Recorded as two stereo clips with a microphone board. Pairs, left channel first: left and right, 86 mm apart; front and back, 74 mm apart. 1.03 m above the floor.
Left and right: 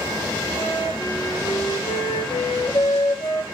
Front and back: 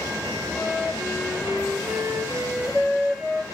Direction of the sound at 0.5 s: 105° left.